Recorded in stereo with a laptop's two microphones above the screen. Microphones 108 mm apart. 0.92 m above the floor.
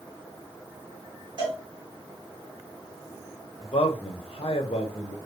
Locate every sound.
1.4 s a cowbell: 45° right (ahead or behind), 1.6 m
3.6 s a man speaking: 60° left (ahead or behind), 0.6 m